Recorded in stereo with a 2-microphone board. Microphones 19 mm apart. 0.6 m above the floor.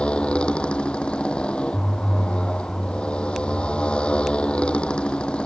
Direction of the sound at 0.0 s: 65° left (ahead or behind).